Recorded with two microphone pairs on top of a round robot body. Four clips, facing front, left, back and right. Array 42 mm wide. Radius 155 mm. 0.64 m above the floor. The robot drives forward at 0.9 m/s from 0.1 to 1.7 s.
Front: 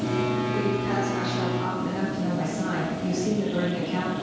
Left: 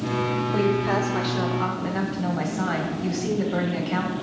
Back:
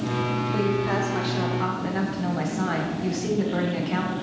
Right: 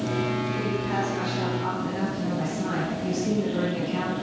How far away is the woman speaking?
About 1.5 m.